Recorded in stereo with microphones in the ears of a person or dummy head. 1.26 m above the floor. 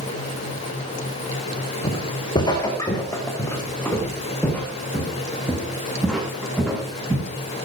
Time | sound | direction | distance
1.8 | footsteps | 25° left (ahead or behind) | 4 m